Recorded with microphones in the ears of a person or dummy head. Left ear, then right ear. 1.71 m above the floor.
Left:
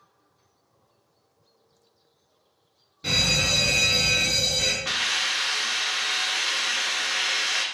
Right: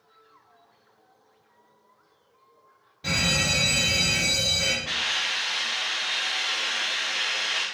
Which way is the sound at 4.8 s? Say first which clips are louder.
Left 1 dB; 50° left (ahead or behind).